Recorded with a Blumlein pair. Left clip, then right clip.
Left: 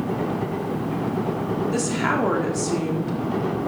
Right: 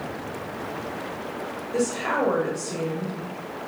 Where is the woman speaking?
40° left, 4 m.